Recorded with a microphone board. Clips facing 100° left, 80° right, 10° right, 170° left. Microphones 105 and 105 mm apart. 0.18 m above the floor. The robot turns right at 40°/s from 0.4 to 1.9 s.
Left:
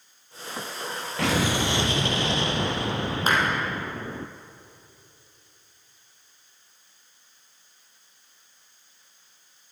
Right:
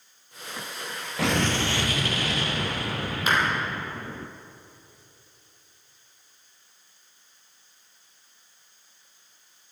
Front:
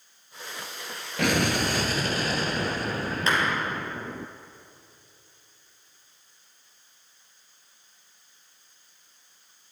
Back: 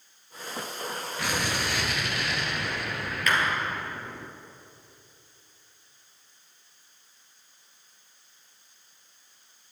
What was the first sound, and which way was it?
An explosion, 10° left.